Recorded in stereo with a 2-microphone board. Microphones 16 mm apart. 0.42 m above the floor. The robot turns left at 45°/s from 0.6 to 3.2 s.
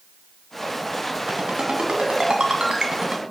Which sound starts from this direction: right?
A ringtone, at 1.3 s.